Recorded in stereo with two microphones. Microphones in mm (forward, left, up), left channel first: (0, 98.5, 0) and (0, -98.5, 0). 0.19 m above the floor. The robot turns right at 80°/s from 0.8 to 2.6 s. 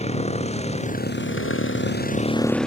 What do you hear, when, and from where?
0.0 s a motorcycle: 30° left; by 2.7 s 175° left